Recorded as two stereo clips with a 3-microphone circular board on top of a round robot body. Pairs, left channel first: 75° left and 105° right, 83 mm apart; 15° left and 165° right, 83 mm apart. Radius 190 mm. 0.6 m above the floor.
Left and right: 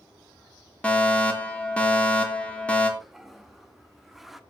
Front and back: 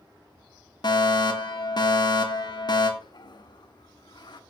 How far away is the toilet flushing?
About 1.5 m.